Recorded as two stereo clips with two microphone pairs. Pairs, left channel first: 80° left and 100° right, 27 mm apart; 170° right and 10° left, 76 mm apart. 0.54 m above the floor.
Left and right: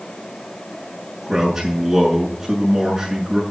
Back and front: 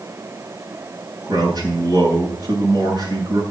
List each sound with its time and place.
1.2 s a man speaking: 15° right, 7.5 m